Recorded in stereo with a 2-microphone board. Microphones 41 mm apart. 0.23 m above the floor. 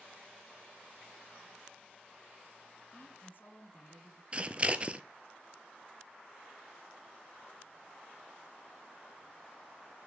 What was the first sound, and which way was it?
A woman speaking, 55° left (ahead or behind).